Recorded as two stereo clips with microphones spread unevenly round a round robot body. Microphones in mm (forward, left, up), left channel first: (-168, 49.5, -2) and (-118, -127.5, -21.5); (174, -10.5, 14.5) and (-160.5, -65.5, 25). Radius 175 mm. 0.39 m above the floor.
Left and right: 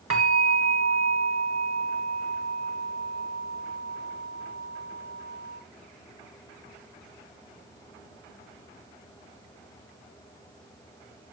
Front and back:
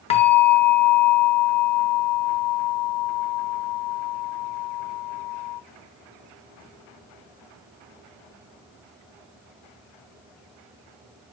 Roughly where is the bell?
Ahead right.